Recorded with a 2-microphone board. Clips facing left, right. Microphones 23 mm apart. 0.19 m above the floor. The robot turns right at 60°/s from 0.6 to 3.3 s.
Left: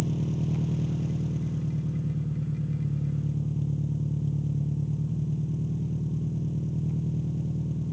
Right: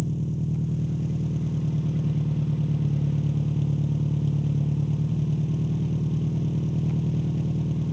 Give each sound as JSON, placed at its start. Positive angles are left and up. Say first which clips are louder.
{"t": 0.0, "sound": "an engine running", "louder": "even", "azimuth_deg": 150, "distance_m": 1.3}